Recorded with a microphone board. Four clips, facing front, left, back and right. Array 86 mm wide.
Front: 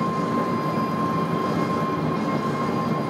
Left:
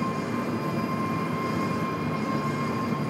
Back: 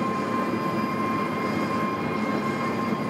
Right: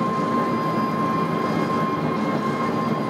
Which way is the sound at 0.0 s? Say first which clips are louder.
Right 7 dB, front 2 dB; 60° right.